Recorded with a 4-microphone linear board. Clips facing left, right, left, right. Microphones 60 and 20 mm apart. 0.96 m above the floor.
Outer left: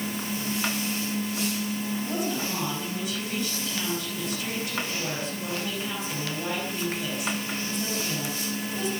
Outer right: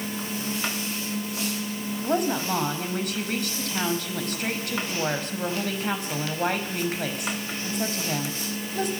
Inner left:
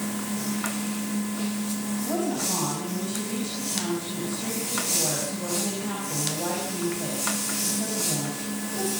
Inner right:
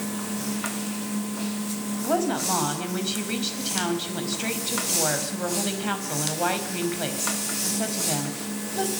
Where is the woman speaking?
60° right (ahead or behind), 5 m.